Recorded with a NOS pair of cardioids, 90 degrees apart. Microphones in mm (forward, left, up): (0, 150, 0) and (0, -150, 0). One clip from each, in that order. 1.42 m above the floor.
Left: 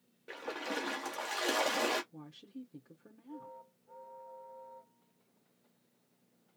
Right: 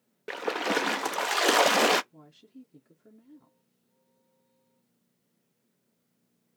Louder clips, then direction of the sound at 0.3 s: Right 11 dB; 60° right.